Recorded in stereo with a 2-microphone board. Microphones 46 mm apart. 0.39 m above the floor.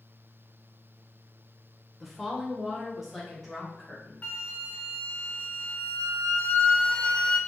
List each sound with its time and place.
2.0 s a woman speaking: 5° right (ahead or behind), 1.0 m; by 4.1 s centre (ahead or behind), 2 m
4.2 s a flute: 30° left (ahead or behind), 0.6 m